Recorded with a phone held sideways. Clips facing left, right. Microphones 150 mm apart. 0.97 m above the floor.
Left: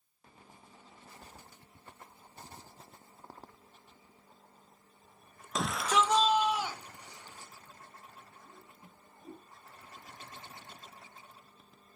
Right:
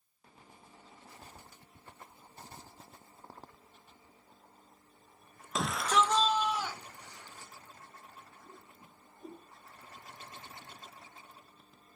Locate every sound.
5.5 s a shout: centre (ahead or behind), 0.7 m; by 7.5 s 15° left (ahead or behind), 3 m
8.4 s a whoosh: 50° right (ahead or behind), 4.5 m